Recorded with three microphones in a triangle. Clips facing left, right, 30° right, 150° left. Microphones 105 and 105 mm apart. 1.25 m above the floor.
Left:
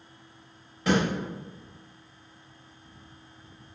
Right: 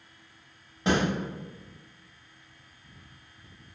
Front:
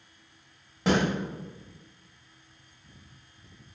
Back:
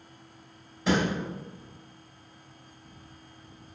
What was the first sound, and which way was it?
A snare drum, 30° right.